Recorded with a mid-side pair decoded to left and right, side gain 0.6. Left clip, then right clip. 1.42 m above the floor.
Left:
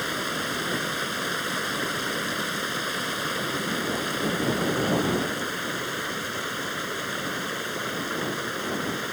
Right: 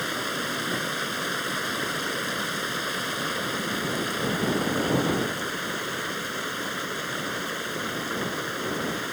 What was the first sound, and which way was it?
Running water, straight ahead.